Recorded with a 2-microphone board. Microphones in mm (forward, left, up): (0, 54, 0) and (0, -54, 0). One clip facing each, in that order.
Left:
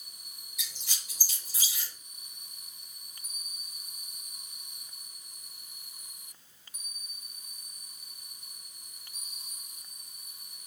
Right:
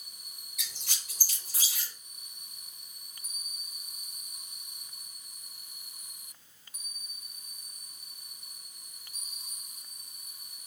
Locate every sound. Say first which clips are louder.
0.6 s a squeak: right 1 dB; 70° right (ahead or behind), 1.4 m